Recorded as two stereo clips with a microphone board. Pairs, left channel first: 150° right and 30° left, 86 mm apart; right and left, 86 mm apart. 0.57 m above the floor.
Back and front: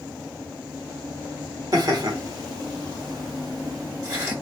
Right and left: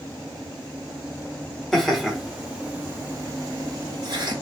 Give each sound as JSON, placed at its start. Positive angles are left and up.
{"t": 1.7, "sound": "laughter", "azimuth_deg": -5, "distance_m": 1.5}